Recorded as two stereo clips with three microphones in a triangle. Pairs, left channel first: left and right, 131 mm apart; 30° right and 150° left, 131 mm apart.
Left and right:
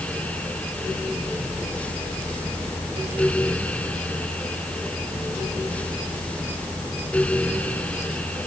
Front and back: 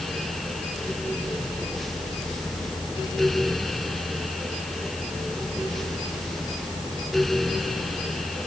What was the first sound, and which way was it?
Only background noise.